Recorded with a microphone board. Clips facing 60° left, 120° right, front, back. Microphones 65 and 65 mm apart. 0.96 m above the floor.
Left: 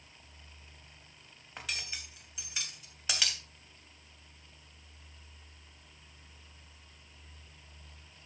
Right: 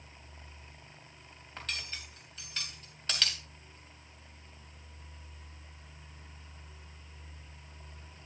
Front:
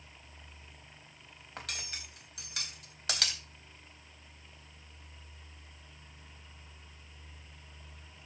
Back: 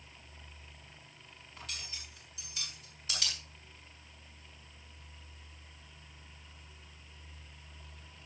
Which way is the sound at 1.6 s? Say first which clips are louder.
Even, front 4 dB; 20° right.